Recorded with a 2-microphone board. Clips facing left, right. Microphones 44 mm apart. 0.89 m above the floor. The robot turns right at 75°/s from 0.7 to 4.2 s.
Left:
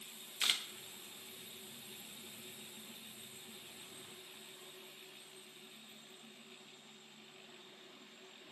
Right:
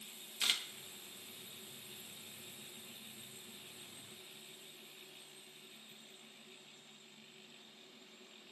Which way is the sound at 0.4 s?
10° left (ahead or behind).